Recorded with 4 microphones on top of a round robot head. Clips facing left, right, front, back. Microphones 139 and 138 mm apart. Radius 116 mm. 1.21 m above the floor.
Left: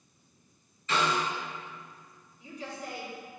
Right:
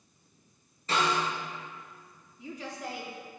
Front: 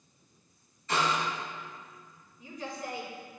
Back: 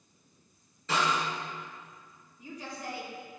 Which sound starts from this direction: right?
A woman speaking, at 2.4 s.